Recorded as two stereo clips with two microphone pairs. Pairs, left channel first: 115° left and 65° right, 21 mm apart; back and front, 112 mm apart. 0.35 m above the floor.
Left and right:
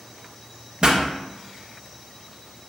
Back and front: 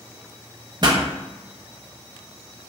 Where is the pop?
40° right, 0.6 m.